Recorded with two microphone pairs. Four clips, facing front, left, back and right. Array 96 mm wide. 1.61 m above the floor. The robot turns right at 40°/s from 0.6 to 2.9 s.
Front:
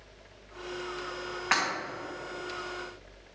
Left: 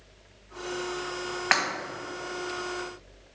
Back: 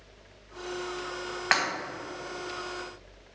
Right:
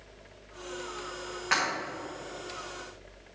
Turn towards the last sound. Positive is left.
turn(degrees=-175)